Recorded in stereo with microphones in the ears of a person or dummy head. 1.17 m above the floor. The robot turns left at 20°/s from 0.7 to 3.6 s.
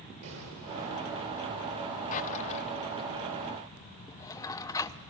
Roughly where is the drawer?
Left.